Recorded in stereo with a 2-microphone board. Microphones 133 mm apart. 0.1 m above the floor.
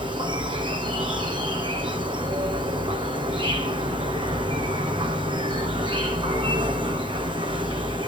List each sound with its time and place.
0.0 s an insect: 35° right (ahead or behind), 1.4 m